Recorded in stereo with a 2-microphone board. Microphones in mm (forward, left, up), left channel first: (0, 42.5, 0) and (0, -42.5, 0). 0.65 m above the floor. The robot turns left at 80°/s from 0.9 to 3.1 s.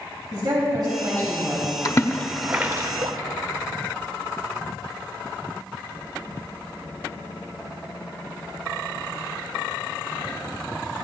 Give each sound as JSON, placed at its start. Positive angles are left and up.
{"t": 0.3, "sound": "a woman speaking", "azimuth_deg": -115, "distance_m": 3.0}
{"t": 1.9, "sound": "a splash", "side_deg": 45, "distance_m": 0.7}